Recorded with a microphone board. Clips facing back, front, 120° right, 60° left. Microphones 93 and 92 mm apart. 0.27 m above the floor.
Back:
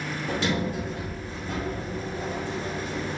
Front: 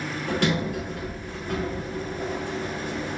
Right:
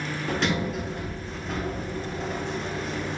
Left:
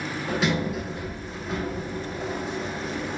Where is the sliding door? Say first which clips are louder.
Front 2 dB, left 1 dB; 25° right, 0.9 m.